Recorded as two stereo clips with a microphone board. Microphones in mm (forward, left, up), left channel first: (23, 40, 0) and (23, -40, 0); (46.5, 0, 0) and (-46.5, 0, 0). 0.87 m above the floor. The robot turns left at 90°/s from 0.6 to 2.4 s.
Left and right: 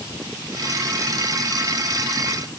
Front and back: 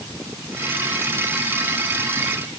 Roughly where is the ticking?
I don't hear ticking.